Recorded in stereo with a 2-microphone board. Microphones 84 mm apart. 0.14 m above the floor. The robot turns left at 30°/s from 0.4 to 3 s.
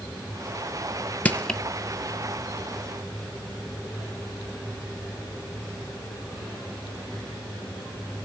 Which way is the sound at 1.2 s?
20° left (ahead or behind).